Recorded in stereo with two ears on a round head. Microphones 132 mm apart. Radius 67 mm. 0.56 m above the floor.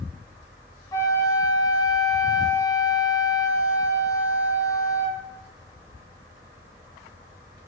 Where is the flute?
20° left (ahead or behind), 2 m.